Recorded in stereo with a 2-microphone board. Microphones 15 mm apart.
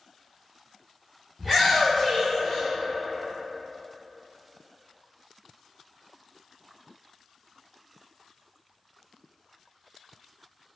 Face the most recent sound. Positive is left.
turn(degrees=50)  # may be behind; listen again after turning